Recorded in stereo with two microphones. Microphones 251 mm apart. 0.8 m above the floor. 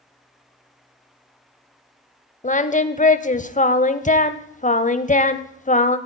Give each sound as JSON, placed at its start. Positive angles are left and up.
{"t": 2.4, "sound": "singing", "side_deg": 30, "distance_m": 0.6}